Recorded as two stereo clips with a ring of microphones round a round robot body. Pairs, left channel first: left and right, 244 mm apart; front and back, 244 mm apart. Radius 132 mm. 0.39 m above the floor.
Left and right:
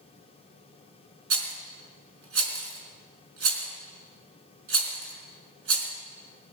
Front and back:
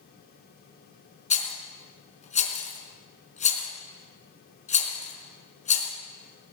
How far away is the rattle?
About 4 m.